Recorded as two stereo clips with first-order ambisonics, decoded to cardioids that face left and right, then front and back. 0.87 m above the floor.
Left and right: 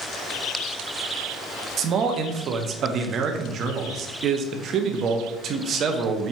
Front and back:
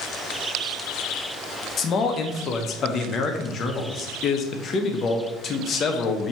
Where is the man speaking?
50° right, 0.6 m.